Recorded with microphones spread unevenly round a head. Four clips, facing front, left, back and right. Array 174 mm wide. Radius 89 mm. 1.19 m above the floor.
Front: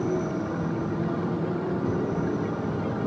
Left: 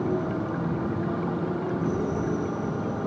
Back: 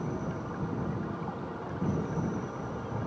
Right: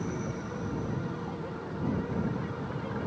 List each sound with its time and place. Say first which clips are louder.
0.0 s a motorcycle: left 8 dB, front 9 dB; 40° left